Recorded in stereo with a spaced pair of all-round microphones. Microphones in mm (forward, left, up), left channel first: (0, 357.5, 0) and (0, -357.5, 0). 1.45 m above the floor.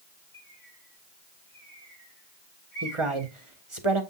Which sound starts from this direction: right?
A man speaking, at 2.8 s.